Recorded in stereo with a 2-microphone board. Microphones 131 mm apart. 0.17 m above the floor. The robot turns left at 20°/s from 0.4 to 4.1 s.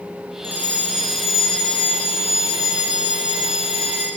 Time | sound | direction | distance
0.4 | a fire alarm | 165° right | 8.5 m